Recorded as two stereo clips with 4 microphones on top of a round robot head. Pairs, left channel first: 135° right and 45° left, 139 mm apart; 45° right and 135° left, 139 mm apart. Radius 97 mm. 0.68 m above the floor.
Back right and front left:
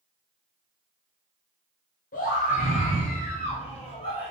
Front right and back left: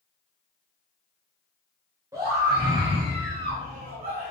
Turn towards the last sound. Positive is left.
turn(degrees=165)